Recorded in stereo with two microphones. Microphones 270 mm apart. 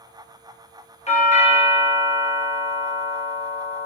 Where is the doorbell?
25° left (ahead or behind), 0.7 m.